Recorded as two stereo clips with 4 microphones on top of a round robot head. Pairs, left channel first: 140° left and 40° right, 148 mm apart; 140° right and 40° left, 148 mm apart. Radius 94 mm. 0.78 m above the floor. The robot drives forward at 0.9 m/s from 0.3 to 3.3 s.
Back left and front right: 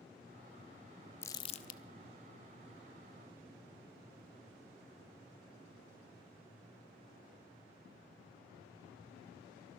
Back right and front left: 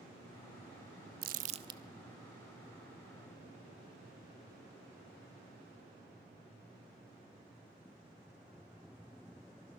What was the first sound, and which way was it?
Crumpling, 65° left.